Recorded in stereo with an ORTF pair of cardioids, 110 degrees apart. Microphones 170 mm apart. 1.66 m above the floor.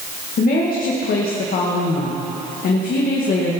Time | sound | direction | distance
0.4 | a woman speaking | 60° left | 2 m